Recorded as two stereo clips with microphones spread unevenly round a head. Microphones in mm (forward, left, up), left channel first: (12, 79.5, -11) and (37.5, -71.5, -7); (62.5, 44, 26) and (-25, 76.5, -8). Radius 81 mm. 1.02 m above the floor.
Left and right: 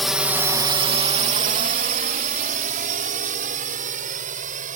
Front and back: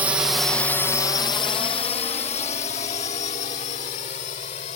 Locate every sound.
0.0 s a drone: 170° right; by 4.8 s 45° right